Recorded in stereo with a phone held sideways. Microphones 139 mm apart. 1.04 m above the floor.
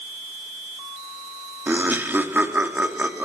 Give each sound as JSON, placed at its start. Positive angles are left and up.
{"t": 1.7, "sound": "laughter", "side_deg": -15, "distance_m": 2.0}